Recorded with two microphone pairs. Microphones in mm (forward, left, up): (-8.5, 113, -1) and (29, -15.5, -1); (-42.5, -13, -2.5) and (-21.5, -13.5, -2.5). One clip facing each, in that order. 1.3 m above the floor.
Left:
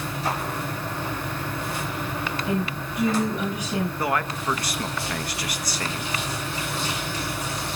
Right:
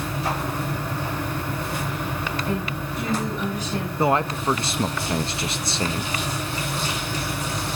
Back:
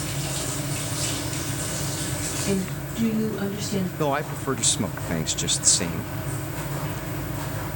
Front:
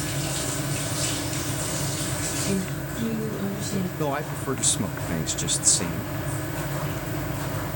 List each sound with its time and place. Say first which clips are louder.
2.5 s a woman speaking: even, back 1 dB; 175° right, 9 m
4.0 s a man speaking: right 5 dB, back 4 dB; 125° right, 0.6 m